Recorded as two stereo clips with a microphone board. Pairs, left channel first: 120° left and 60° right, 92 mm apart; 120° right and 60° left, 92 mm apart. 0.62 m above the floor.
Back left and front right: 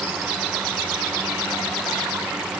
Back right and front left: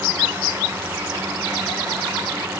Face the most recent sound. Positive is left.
No sound to turn to.